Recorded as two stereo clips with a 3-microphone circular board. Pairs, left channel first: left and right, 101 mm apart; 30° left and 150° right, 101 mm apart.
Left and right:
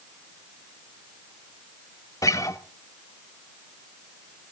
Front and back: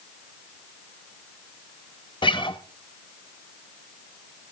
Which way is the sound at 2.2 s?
40° left.